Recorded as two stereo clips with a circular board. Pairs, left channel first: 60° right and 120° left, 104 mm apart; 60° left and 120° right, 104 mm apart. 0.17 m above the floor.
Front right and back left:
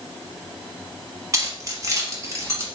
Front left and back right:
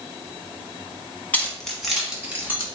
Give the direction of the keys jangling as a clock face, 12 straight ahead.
8 o'clock.